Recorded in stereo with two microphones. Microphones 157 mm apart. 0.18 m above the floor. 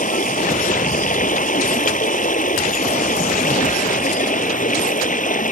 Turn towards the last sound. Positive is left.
turn(degrees=60)  # may be behind; listen again after turning